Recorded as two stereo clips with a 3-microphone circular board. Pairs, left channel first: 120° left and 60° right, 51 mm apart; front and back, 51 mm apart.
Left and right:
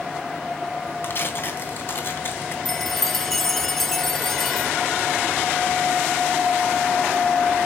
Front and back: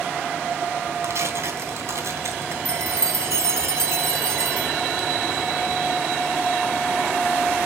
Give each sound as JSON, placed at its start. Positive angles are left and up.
{"t": 1.0, "sound": "tearing paper", "azimuth_deg": 160, "distance_m": 3.0}
{"t": 2.6, "sound": "a chime", "azimuth_deg": -155, "distance_m": 0.7}